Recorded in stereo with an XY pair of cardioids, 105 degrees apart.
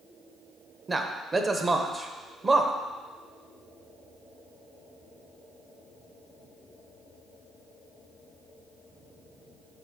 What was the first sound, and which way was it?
A man speaking, 25° right.